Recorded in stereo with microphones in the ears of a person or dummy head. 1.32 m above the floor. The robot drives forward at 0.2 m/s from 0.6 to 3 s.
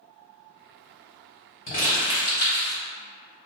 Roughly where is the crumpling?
Left.